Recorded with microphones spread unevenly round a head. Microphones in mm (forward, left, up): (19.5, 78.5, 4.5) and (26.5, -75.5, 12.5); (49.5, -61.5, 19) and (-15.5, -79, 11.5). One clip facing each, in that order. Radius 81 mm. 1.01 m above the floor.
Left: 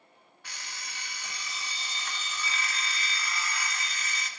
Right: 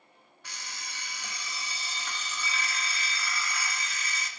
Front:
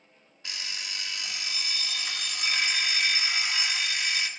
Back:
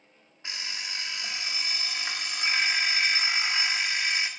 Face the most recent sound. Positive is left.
turn(degrees=-100)